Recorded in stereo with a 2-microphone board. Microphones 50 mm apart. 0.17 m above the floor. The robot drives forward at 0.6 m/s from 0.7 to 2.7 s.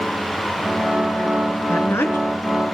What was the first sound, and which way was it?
A woman speaking, 55° left (ahead or behind).